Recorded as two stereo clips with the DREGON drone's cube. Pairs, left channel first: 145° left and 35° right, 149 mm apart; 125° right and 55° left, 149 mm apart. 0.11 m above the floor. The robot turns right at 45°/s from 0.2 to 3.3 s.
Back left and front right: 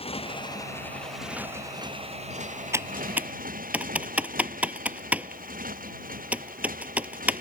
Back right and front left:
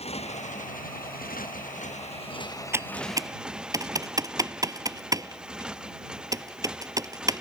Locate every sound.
0.0 s a motorcycle: 170° right; by 7.4 s 30° right
2.7 s typing on a keyboard: 5° left; by 7.4 s 35° left